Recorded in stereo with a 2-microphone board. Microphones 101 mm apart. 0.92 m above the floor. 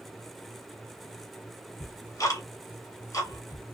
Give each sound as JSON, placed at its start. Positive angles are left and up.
{"t": 1.8, "sound": "ticking", "side_deg": 35, "distance_m": 0.7}